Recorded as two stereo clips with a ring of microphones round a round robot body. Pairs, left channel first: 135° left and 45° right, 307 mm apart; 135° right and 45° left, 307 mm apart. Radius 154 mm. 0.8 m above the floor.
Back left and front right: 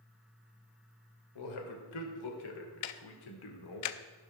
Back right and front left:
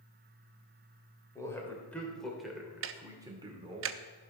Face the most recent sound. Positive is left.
turn(degrees=95)